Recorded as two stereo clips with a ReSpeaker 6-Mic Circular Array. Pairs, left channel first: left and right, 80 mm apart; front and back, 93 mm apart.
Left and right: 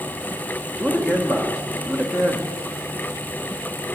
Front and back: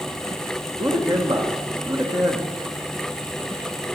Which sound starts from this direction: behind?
A man speaking, at 0.8 s.